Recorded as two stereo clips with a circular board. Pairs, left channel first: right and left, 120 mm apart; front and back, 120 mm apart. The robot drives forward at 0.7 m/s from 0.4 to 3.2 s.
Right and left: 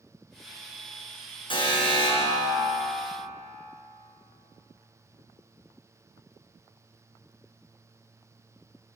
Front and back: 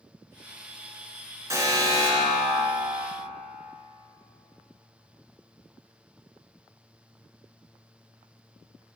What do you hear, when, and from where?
1.5 s an alarm: 120° right, 3.5 m; by 3.0 s 140° right, 4 m